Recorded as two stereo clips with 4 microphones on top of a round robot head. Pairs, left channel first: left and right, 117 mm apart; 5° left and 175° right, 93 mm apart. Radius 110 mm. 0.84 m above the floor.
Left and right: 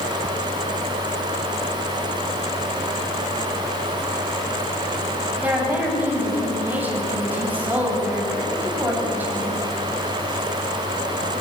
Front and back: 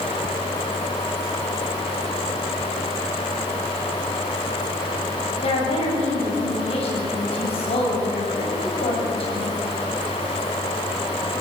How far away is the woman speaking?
About 7 m.